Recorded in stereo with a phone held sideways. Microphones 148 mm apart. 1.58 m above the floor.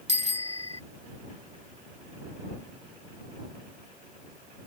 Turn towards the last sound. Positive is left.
turn(degrees=-50)  # may be behind; listen again after turning